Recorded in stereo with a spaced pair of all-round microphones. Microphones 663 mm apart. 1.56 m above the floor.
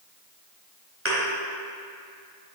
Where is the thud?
20° right (ahead or behind), 1.8 m.